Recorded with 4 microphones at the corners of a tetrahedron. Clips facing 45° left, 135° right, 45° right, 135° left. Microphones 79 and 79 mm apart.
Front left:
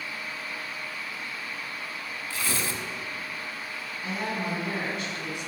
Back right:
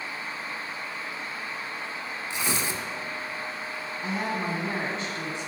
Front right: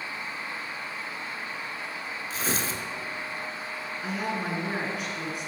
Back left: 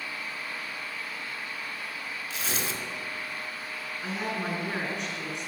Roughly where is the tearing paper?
Right.